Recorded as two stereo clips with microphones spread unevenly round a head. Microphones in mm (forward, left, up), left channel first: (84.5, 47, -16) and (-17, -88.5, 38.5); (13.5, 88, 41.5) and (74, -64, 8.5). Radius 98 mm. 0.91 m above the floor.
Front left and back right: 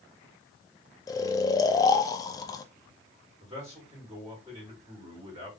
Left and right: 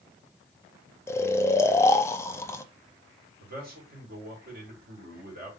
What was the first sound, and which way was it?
Snoring, 30° left.